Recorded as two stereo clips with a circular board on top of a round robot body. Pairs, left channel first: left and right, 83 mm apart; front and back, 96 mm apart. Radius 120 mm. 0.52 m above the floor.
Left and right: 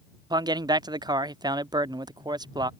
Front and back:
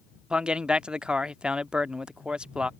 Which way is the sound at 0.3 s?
100° right.